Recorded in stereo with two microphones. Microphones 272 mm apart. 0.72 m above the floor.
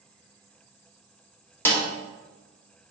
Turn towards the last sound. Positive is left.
turn(degrees=5)  # may be behind; listen again after turning